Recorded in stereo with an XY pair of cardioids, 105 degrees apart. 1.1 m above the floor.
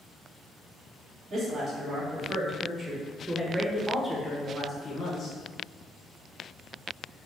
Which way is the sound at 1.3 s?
55° right.